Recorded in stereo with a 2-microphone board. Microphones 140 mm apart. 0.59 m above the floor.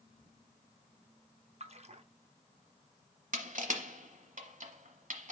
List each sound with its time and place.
1.6 s a splash: 50° right (ahead or behind), 0.6 m
3.3 s crushing: 65° right (ahead or behind), 1.0 m